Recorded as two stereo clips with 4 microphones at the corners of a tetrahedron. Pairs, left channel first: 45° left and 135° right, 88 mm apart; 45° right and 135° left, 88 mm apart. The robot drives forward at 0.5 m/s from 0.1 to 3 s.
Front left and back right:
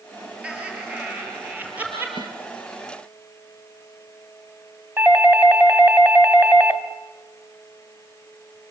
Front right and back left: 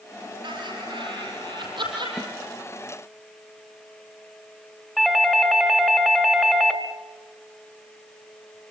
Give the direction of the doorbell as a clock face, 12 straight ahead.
5 o'clock.